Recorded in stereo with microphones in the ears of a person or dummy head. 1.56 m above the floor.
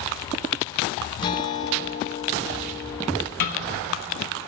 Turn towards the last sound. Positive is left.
turn(degrees=50)  # may be behind; listen again after turning